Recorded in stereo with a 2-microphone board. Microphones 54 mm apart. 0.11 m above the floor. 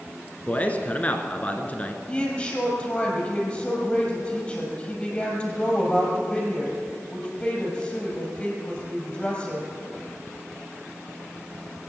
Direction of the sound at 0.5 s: 25° left (ahead or behind).